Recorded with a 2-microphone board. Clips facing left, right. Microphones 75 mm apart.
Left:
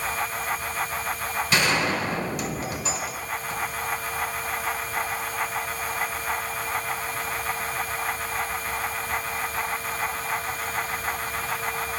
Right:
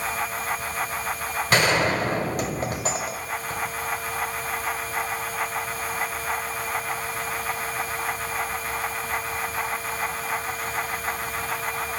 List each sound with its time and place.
1.5 s a gunshot: 50° right (ahead or behind), 1.6 m